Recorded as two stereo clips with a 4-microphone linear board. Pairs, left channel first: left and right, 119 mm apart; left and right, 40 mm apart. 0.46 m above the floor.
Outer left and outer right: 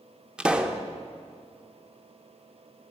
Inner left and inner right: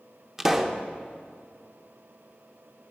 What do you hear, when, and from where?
0.4 s a pop: 10° right (ahead or behind), 0.6 m